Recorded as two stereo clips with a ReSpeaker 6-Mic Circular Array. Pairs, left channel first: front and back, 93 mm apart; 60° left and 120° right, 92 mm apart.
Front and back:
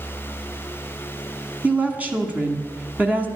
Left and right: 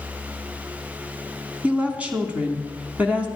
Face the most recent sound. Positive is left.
turn(degrees=-160)